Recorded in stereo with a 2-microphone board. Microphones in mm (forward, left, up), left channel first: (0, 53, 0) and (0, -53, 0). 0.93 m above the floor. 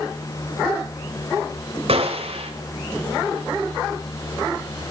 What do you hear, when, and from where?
1.9 s a gunshot: 65° right (ahead or behind), 2.5 m